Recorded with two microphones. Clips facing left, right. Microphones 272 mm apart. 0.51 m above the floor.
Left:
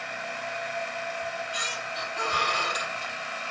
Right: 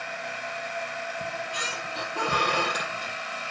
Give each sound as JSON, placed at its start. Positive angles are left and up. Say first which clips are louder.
{"t": 1.2, "sound": "a squeak", "louder": "right 1 dB", "side_deg": -65, "distance_m": 1.6}